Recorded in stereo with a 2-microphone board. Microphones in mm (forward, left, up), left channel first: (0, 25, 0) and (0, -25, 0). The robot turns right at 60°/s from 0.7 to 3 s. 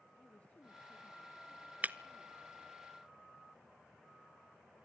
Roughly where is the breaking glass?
Right.